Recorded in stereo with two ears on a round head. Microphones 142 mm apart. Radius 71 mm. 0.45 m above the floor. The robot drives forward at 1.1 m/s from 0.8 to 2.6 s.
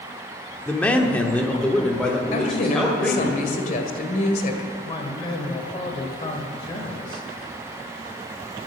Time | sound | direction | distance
0.7 | a man speaking | 10° left (ahead or behind) | 1.1 m
2.3 | a woman speaking | 45° left (ahead or behind) | 2 m
4.8 | a man speaking | 35° left (ahead or behind) | 1.6 m